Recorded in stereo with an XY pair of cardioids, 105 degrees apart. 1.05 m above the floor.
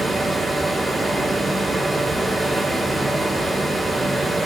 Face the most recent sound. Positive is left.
turn(degrees=-15)